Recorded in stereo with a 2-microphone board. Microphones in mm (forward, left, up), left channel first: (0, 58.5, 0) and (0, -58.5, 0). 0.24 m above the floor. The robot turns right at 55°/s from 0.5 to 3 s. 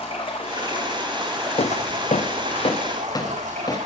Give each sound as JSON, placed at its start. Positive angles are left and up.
{"t": 0.0, "sound": "running water", "azimuth_deg": 130, "distance_m": 3.0}
{"t": 1.6, "sound": "footsteps", "side_deg": 60, "distance_m": 0.6}